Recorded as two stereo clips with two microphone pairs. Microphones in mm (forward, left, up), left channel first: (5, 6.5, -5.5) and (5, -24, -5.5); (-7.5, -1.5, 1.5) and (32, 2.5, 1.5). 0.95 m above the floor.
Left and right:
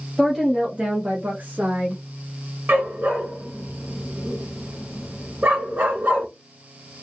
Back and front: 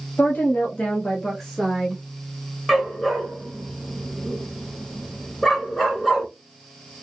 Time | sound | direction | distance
0.2 | a woman speaking | 165° right | 1.3 m
2.7 | a dog barking | 95° right | 2.5 m